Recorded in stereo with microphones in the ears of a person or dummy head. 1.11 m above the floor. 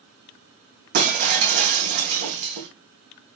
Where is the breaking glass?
55° right (ahead or behind), 2.5 m.